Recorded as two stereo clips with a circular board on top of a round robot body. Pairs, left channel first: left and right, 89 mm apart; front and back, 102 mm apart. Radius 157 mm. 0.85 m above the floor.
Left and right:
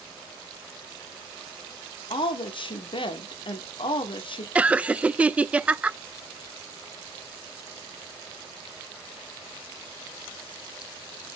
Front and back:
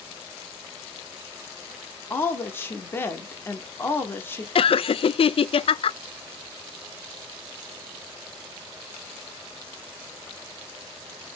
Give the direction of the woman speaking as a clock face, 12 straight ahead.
10 o'clock.